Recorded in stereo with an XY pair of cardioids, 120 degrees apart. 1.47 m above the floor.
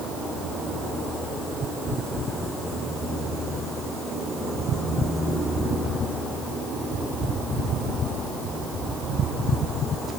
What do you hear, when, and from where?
Only background noise.